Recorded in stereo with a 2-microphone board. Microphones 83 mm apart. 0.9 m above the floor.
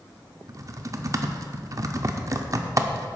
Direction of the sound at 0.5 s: 40° right (ahead or behind).